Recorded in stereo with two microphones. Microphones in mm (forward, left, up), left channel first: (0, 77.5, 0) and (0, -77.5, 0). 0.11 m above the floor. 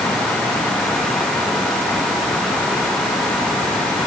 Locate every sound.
Only background noise.